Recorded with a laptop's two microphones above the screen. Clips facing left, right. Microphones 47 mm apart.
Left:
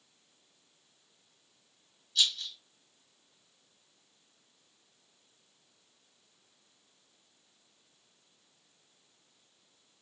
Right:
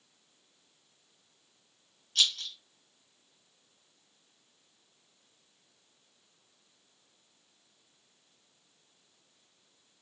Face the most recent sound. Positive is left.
turn(degrees=-60)  # may be behind; listen again after turning